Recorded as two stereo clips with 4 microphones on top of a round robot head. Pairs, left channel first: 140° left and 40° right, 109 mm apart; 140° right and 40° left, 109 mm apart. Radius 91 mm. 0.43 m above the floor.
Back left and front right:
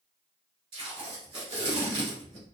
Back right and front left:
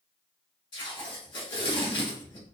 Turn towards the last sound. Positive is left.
turn(degrees=-90)